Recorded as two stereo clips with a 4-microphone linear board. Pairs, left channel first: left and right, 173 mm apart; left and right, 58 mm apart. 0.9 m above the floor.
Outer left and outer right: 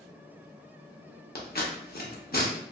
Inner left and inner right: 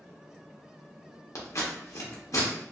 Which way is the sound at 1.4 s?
60° left (ahead or behind).